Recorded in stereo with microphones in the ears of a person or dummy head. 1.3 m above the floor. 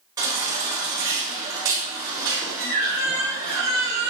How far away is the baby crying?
About 3.5 m.